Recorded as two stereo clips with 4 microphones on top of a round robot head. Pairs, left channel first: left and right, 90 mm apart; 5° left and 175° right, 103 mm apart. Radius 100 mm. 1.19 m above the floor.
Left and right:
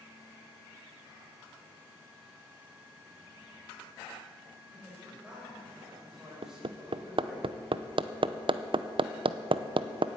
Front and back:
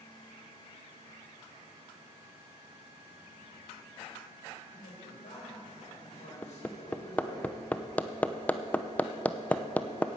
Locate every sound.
4.7 s a man speaking: 10° right, 5 m
6.4 s hammering: 70° right, 0.7 m